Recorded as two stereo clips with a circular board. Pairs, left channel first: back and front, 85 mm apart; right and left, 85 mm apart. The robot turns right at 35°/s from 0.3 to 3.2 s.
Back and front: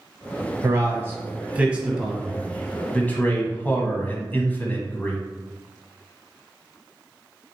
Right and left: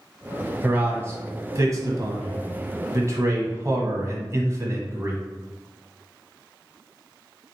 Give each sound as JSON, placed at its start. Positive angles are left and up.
{"t": 0.6, "sound": "a man speaking", "azimuth_deg": 35, "distance_m": 1.3}